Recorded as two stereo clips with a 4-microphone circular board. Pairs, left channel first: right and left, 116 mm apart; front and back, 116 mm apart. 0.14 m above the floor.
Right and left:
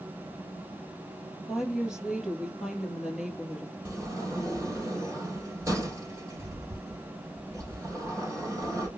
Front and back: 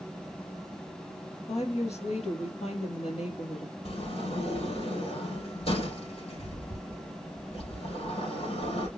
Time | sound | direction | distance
1.5 | a woman speaking | 5° left | 2.5 m
3.9 | a sliding door | 30° left | 4 m